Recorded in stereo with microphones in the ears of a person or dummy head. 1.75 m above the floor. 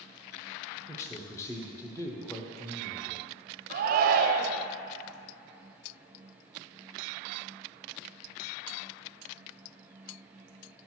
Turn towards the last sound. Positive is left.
turn(degrees=-55)  # may be behind; listen again after turning